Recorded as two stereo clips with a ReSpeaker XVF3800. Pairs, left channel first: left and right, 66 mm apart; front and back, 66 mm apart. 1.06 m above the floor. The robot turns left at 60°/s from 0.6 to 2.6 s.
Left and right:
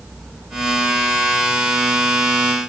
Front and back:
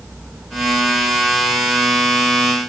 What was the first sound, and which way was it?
Only background noise.